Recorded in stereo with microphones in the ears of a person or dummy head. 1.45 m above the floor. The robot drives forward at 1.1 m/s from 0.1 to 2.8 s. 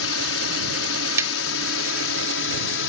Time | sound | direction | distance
0.0 | a drone | 70° left (ahead or behind) | ?
1.2 | tapping | 15° right (ahead or behind) | ?